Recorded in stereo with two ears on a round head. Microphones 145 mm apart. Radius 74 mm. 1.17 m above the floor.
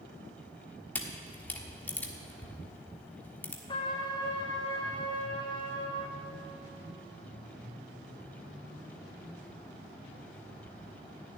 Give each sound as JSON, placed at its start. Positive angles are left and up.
{"t": 0.9, "sound": "a camera shutter", "side_deg": 10, "distance_m": 1.3}
{"t": 3.7, "sound": "a trumpet", "side_deg": 25, "distance_m": 1.3}